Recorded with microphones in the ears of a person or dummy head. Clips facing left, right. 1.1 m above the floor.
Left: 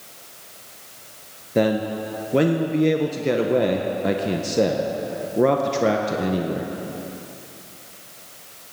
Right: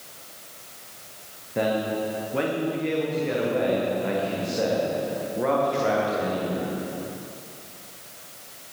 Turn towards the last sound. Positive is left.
turn(degrees=50)  # may be behind; listen again after turning